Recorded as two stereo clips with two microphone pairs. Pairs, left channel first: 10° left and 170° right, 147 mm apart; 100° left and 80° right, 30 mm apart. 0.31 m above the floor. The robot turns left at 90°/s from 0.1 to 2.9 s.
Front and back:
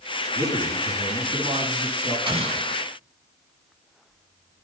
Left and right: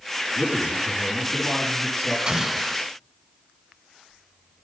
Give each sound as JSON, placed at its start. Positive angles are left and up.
{"t": 0.3, "sound": "a man speaking", "azimuth_deg": -105, "distance_m": 6.5}
{"t": 2.3, "sound": "an explosion", "azimuth_deg": -130, "distance_m": 0.8}